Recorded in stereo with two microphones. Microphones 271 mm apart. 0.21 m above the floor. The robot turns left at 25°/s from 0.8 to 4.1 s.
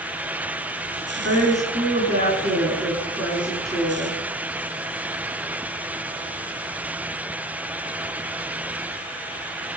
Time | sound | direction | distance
1.2 | a woman speaking | 120° right | 3 m